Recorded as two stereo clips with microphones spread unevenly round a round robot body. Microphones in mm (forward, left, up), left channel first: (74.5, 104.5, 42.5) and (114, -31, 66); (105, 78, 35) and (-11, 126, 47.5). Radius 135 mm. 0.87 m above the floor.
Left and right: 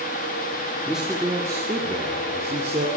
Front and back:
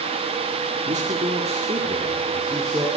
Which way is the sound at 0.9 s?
165° right.